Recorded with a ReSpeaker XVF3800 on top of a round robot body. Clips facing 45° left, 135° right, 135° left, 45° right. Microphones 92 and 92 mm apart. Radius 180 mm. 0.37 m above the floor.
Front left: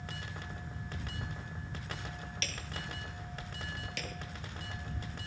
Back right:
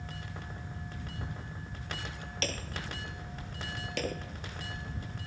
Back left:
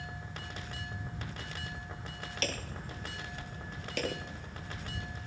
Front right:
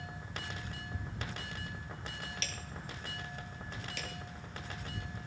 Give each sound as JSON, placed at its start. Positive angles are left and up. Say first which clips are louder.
{"t": 2.4, "sound": "hammering", "louder": "back right 8 dB, back left 6 dB", "azimuth_deg": 175}